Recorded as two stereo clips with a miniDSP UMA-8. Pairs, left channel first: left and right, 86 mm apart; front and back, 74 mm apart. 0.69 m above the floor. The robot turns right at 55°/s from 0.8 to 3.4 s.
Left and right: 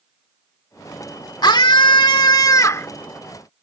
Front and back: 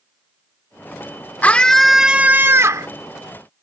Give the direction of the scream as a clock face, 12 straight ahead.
10 o'clock.